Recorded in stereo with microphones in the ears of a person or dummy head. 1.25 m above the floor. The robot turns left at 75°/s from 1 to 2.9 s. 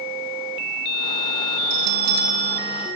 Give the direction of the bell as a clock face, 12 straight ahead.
3 o'clock.